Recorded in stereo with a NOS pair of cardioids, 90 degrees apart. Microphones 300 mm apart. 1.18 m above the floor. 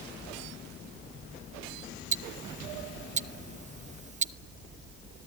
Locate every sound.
2.1 s ticking: 25° right, 0.7 m